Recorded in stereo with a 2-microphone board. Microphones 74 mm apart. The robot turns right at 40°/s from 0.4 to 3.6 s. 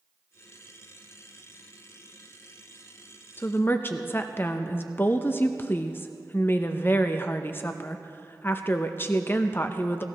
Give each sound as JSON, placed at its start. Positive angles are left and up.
{"t": 3.4, "sound": "a woman speaking", "side_deg": 30, "distance_m": 0.5}